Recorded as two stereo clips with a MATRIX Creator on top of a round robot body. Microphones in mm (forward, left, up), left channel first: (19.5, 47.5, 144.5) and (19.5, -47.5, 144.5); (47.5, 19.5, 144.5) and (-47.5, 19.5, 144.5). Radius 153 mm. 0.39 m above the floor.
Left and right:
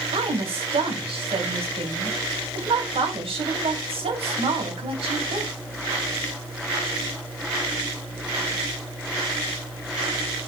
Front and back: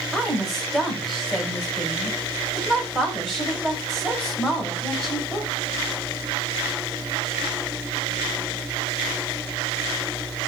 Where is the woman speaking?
85° right, 3 m.